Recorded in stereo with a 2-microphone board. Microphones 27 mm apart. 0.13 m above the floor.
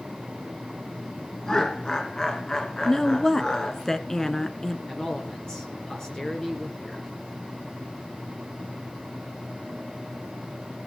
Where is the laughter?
25° left (ahead or behind), 1.9 m.